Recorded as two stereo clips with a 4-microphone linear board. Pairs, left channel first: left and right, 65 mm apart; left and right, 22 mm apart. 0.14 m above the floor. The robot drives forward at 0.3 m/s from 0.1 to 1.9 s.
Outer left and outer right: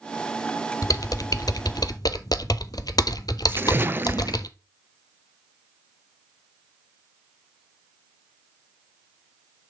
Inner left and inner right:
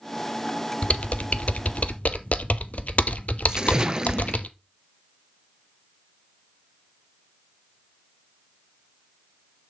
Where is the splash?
35° right (ahead or behind), 0.5 m.